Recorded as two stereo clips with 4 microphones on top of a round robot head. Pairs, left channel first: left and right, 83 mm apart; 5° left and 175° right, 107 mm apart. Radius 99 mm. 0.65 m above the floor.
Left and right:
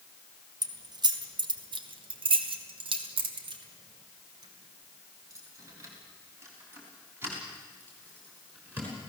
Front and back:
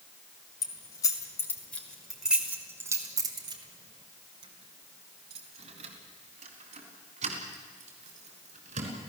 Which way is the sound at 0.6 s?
55° right.